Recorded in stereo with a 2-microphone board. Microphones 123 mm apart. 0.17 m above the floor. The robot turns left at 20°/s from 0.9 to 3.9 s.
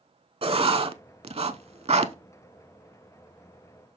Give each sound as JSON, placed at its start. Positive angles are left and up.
{"t": 0.4, "sound": "writing", "side_deg": -50, "distance_m": 0.6}